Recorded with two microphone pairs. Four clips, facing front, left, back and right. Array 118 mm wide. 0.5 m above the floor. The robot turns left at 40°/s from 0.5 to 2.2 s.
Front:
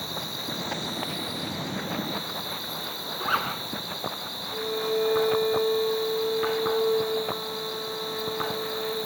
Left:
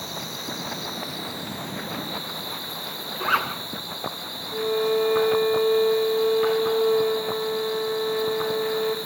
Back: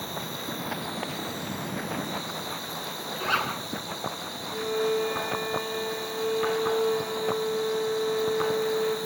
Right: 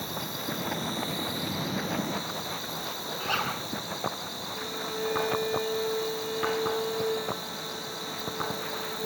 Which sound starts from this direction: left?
A violin, at 4.5 s.